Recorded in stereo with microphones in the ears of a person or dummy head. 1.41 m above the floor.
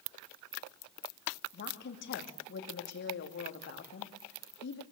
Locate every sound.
1.5 s a woman speaking: 55° left (ahead or behind), 2.5 m